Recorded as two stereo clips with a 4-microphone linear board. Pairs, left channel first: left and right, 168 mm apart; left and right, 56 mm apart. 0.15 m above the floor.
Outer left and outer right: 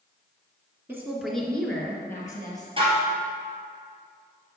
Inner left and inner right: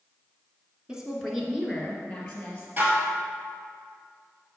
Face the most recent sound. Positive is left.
turn(degrees=-30)  # may be behind; listen again after turning